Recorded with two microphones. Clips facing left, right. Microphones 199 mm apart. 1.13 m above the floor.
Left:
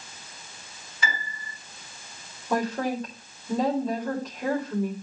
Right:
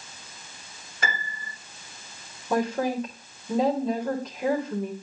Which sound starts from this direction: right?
A piano, at 1.0 s.